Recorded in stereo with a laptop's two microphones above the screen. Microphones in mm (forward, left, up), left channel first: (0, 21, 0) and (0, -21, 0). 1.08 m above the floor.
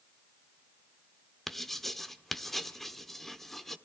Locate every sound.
1.5 s writing: 5° left (ahead or behind), 1.0 m